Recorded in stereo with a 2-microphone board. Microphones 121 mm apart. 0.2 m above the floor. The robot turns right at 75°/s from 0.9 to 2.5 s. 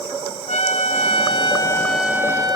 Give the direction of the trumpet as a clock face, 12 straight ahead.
9 o'clock.